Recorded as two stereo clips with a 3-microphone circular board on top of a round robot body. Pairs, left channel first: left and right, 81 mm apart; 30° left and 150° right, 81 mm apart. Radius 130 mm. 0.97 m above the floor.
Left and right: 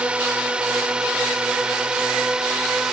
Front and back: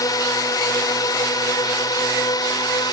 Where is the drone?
15° right; by 2.9 s 10° right.